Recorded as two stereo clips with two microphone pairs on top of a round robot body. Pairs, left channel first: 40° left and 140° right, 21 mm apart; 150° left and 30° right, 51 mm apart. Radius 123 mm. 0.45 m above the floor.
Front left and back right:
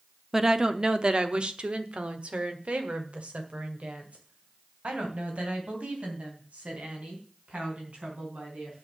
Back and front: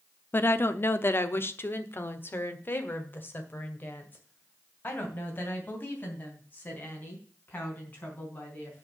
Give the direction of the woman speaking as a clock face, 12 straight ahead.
7 o'clock.